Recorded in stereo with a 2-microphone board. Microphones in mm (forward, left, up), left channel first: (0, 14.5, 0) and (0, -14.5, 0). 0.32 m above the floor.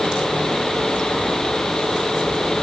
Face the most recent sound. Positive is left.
No sound to turn to.